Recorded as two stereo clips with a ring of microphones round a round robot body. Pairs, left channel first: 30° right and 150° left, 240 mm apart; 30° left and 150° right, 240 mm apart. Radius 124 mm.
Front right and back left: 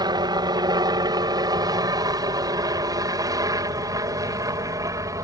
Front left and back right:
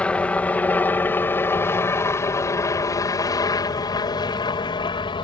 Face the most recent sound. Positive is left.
turn(degrees=85)